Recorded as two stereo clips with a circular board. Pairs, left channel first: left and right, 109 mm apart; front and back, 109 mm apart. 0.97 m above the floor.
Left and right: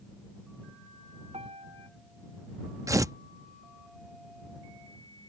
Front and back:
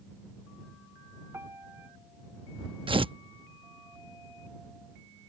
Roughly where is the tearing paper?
Behind right.